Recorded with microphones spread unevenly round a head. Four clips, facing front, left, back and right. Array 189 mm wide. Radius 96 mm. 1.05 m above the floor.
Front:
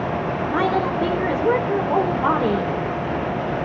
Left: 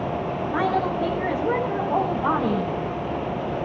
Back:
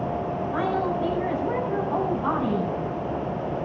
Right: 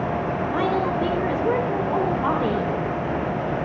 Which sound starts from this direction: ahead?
A woman speaking, at 0.5 s.